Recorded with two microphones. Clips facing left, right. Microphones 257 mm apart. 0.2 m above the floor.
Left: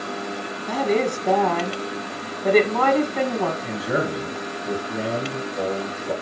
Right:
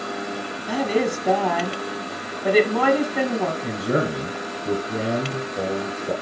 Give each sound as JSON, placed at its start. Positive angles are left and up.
{"t": 0.7, "sound": "a woman speaking", "side_deg": -10, "distance_m": 1.5}
{"t": 3.6, "sound": "a man speaking", "side_deg": -50, "distance_m": 2.5}